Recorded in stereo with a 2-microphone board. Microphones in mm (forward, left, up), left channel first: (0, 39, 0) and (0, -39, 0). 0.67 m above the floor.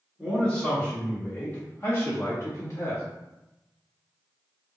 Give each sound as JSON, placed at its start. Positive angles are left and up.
{"t": 0.2, "sound": "a man speaking", "side_deg": 10, "distance_m": 1.4}